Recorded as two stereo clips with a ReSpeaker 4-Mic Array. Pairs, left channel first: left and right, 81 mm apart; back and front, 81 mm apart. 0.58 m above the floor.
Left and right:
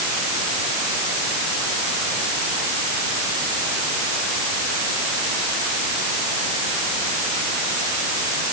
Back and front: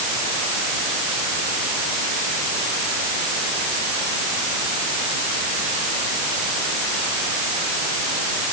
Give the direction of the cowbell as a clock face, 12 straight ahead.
I don't hear a cowbell.